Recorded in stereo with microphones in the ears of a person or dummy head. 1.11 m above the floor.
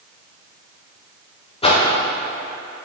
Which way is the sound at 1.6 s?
35° left (ahead or behind).